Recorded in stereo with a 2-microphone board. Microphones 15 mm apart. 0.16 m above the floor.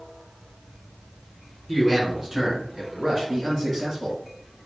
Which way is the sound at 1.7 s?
15° right (ahead or behind).